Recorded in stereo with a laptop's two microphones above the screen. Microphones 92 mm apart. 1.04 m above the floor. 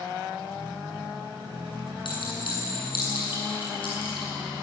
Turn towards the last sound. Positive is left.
turn(degrees=60)  # may be behind; listen again after turning